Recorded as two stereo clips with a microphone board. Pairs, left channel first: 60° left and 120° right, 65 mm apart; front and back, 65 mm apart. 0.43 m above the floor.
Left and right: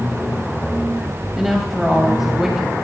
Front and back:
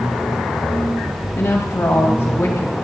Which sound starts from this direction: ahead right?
A woman speaking, at 1.4 s.